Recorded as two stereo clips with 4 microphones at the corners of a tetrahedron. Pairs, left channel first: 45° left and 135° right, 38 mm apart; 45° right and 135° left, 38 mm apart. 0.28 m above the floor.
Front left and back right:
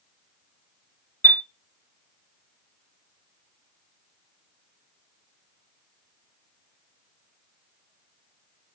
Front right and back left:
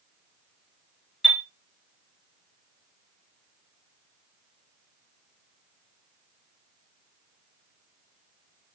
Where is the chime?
40° left, 0.7 m.